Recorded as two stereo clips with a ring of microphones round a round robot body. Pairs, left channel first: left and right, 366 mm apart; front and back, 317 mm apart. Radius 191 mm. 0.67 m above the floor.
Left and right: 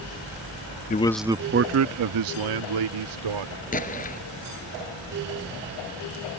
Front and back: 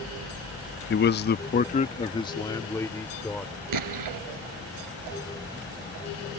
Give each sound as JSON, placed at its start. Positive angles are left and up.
{"t": 0.9, "sound": "a man speaking", "azimuth_deg": 35}
{"t": 3.7, "sound": "an explosion", "azimuth_deg": 160}